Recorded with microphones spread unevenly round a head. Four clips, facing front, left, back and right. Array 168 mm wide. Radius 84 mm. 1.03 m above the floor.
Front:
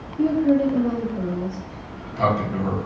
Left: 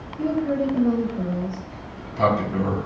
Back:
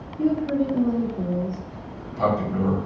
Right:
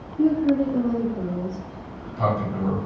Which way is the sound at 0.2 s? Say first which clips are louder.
Right 3 dB, front 4 dB; 45° right.